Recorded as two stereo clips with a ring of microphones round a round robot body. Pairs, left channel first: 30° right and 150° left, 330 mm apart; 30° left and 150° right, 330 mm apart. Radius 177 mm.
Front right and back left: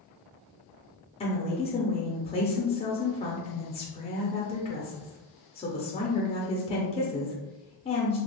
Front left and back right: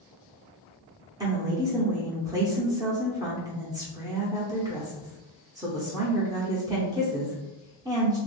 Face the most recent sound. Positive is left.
turn(degrees=-85)